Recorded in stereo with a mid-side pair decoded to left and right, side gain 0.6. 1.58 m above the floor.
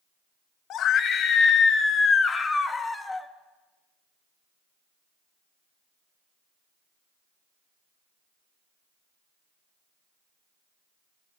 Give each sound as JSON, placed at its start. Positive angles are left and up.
{"t": 0.7, "sound": "a scream", "azimuth_deg": 55, "distance_m": 1.9}